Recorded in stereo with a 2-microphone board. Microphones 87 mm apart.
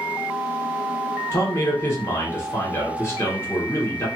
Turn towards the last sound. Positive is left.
turn(degrees=30)  # may be behind; listen again after turning